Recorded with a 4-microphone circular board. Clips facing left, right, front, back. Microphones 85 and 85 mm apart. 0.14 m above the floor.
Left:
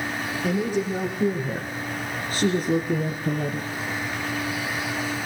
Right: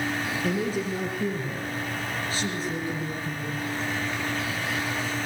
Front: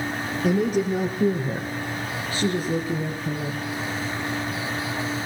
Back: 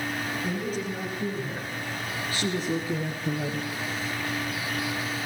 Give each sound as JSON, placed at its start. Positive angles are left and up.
{"t": 0.4, "sound": "a woman speaking", "azimuth_deg": 10, "distance_m": 4.0}